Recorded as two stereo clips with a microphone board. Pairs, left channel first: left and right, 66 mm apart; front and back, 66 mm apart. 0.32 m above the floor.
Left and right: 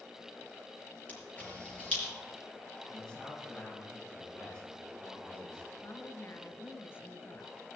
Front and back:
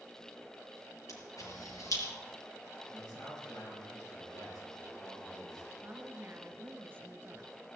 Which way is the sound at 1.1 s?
25° left.